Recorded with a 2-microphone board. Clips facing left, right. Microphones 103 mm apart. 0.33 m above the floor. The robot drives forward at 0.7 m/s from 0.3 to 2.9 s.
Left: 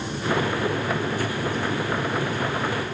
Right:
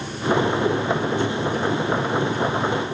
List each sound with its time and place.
Only background noise.